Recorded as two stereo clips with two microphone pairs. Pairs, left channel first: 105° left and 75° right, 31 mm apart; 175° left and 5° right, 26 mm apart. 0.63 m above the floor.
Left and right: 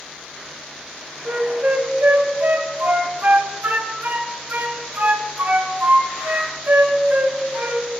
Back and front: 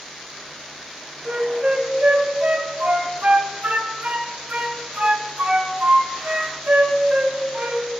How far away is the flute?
About 1.2 m.